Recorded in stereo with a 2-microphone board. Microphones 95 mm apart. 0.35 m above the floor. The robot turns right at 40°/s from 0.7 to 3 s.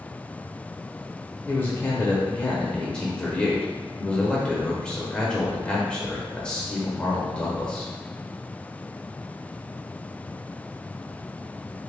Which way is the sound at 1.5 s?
20° left (ahead or behind).